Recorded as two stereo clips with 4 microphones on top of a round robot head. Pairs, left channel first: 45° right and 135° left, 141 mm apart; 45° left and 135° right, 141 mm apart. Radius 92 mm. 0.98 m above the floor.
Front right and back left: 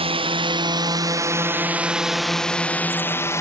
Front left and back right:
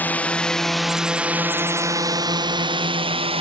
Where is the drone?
115° left; by 3.4 s 110° right.